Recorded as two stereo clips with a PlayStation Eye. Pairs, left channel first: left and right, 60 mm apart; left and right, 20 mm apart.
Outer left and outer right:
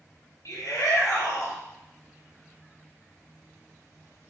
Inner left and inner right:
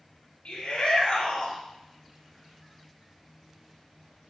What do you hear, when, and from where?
0.5 s a shout: 65° left (ahead or behind), 6 m